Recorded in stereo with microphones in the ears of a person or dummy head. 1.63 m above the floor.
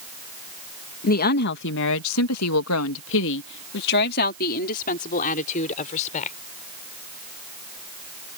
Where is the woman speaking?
45° left (ahead or behind); by 6.3 s 40° left (ahead or behind).